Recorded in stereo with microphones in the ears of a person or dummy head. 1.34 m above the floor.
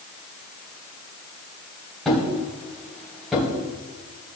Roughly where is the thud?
Centre.